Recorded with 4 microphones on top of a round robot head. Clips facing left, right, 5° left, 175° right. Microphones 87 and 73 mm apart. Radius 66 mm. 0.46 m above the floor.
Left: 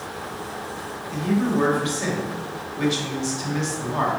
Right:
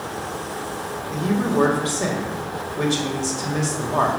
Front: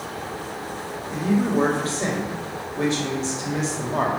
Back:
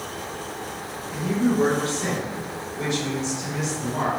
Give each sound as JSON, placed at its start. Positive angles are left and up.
{"t": 1.1, "sound": "a man speaking", "azimuth_deg": -45, "distance_m": 2.0}